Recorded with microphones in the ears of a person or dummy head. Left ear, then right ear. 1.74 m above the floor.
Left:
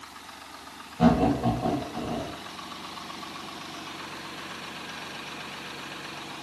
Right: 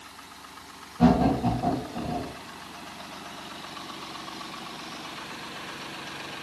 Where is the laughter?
35° left (ahead or behind), 1.1 m.